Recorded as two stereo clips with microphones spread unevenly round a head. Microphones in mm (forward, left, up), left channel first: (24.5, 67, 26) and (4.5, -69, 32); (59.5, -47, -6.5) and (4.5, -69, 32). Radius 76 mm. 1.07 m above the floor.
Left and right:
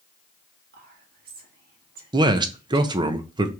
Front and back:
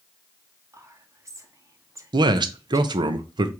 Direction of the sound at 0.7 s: 100° right.